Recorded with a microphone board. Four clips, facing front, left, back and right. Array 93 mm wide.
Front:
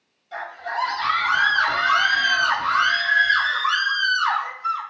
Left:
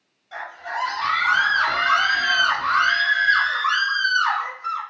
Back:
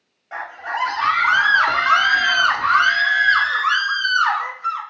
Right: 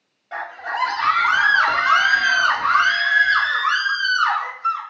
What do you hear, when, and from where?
0.3 s a scream: 140° right, 2 m; by 4.8 s 175° left, 4.5 m